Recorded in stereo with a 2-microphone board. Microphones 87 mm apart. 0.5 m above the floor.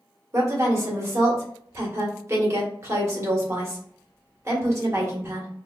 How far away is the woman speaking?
About 1.0 m.